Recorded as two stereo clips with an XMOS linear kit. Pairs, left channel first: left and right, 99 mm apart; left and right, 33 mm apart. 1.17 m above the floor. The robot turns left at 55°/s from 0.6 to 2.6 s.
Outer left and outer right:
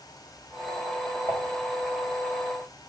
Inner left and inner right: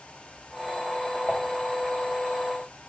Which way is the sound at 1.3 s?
40° right (ahead or behind).